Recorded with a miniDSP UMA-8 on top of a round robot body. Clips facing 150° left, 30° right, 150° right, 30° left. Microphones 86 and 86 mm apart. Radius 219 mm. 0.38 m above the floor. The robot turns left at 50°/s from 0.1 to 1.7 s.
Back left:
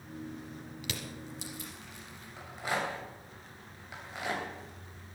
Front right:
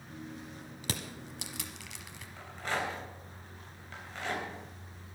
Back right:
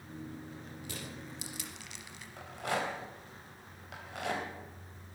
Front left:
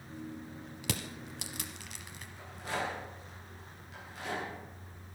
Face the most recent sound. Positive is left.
turn(degrees=-130)